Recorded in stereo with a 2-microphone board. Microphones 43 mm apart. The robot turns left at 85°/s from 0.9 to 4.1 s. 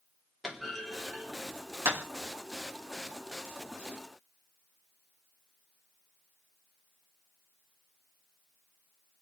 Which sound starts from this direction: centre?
A clunk, at 0.4 s.